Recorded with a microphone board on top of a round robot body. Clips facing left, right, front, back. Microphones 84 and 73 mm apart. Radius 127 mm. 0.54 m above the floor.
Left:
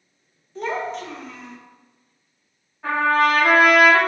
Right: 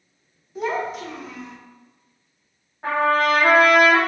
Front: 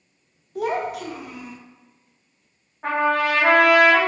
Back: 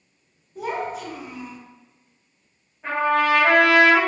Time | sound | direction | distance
0.6 | a child speaking | 10° right | 0.7 m
2.8 | a trumpet | 35° right | 0.9 m